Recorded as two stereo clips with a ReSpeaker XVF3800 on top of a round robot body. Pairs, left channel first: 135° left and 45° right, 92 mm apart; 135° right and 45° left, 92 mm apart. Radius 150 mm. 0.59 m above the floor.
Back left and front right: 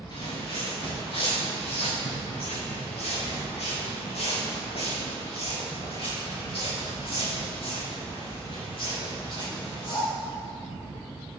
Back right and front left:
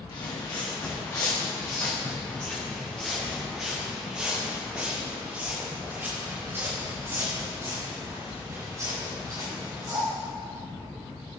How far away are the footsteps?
About 4 m.